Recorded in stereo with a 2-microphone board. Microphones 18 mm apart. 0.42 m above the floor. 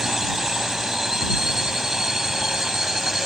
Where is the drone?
30° right (ahead or behind).